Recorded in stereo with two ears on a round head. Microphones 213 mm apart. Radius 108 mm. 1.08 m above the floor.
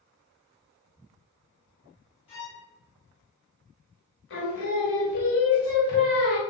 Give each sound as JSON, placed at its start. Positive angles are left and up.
{"t": 2.3, "sound": "a violin", "side_deg": 25, "distance_m": 1.0}
{"t": 4.3, "sound": "singing", "side_deg": 55, "distance_m": 1.1}